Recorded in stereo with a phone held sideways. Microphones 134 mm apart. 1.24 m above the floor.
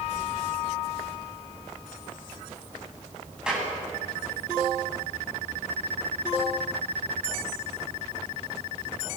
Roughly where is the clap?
Centre.